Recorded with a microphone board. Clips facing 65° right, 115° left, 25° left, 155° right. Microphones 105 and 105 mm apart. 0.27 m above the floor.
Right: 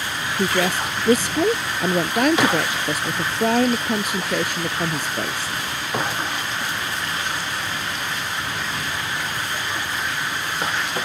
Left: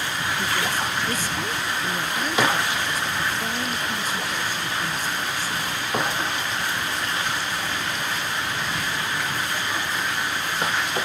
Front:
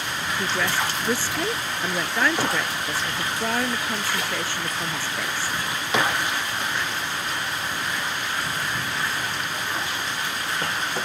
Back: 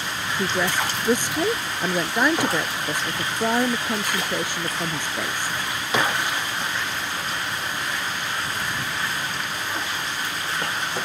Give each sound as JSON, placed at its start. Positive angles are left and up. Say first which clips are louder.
{"t": 0.4, "sound": "a woman speaking", "louder": "right 7 dB, back 2 dB", "azimuth_deg": -85}